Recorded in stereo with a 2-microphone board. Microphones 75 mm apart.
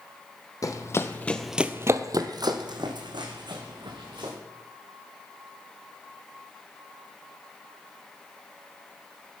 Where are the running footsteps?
50° left (ahead or behind), 0.9 m; by 4.3 s 80° right, 2.5 m.